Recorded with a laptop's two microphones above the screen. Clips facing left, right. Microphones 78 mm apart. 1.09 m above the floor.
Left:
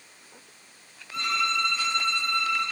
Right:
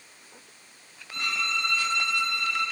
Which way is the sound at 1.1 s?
65° right (ahead or behind).